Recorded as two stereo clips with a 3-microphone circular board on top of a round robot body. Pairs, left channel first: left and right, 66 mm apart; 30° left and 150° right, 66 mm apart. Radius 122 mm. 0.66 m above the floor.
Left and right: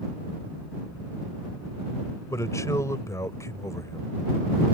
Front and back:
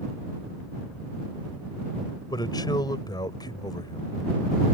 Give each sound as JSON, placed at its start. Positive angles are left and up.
{"t": 2.3, "sound": "a man speaking", "azimuth_deg": 45}